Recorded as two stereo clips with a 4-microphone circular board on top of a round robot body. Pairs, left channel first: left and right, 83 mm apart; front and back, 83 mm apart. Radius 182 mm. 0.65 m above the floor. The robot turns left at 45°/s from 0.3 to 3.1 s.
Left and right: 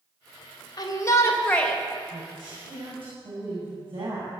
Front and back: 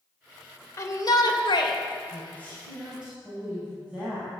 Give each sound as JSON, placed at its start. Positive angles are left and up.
{"t": 0.8, "sound": "a shout", "azimuth_deg": 50, "distance_m": 2.5}
{"t": 2.1, "sound": "a woman speaking", "azimuth_deg": -60, "distance_m": 6.0}